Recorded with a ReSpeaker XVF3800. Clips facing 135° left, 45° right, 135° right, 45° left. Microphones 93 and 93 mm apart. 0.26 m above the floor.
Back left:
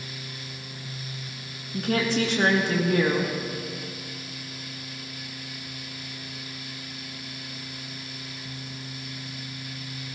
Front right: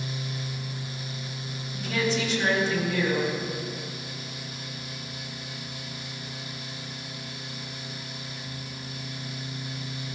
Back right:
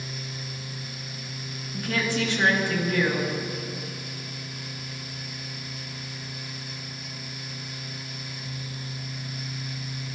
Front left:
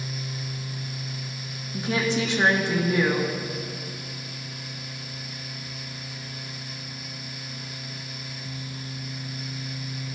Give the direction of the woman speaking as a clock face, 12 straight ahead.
8 o'clock.